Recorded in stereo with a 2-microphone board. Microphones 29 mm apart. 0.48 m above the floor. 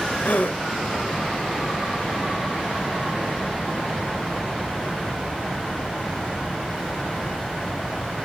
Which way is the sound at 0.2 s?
75° left (ahead or behind).